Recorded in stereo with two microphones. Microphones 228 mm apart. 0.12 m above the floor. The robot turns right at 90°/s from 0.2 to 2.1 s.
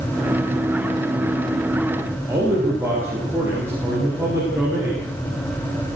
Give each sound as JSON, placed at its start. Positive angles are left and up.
{"t": 2.3, "sound": "a man speaking", "side_deg": -10, "distance_m": 8.0}